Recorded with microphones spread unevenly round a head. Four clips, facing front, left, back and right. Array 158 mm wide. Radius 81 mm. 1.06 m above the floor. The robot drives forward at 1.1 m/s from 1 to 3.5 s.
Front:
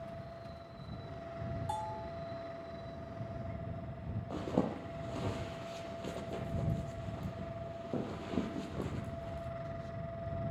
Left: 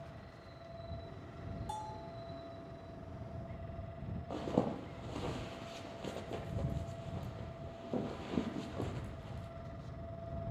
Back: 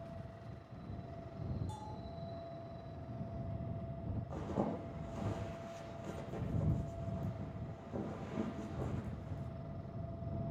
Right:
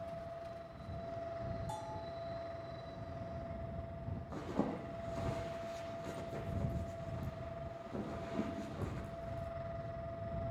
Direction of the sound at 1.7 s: 15° left.